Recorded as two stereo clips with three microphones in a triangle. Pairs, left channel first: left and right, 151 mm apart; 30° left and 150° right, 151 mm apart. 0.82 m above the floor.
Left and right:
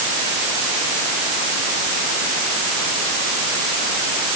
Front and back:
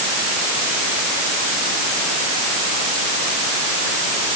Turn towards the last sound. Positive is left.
No sound to turn to.